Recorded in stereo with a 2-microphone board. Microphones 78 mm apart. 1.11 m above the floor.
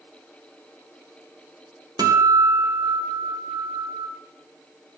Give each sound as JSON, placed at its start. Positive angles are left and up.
{"t": 2.0, "sound": "a guitar", "side_deg": -60, "distance_m": 1.5}